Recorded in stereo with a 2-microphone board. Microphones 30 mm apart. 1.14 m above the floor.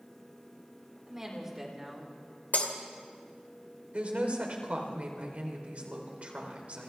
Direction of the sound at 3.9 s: 50° right (ahead or behind).